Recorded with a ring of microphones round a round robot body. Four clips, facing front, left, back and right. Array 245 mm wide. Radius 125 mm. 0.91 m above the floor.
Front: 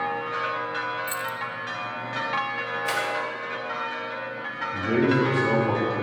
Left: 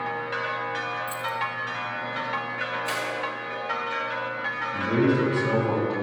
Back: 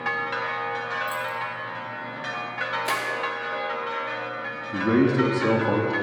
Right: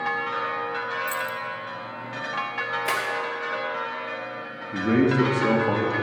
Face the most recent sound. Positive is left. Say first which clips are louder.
# right 2 dB, back 2 dB
turn(degrees=-145)